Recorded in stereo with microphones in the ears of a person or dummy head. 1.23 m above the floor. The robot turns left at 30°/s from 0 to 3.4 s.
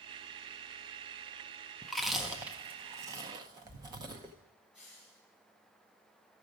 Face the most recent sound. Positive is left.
turn(degrees=-5)  # may be behind; listen again after turning